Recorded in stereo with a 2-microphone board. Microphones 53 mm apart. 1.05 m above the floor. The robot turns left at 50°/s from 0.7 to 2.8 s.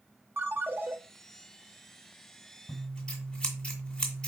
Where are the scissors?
25° left (ahead or behind), 1.8 m; by 4.3 s 15° left (ahead or behind), 1.8 m.